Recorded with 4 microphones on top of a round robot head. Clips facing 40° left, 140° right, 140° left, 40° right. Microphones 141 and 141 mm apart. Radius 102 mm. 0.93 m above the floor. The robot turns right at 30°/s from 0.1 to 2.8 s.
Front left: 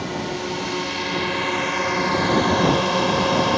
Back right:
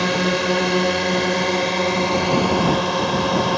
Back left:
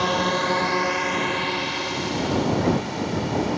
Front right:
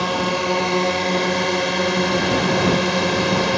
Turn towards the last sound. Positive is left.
turn(degrees=-50)